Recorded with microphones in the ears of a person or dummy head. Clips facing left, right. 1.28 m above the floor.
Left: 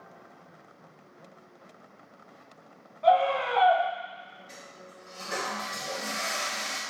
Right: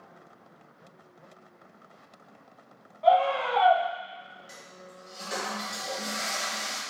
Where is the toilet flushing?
15° right (ahead or behind), 1.9 m.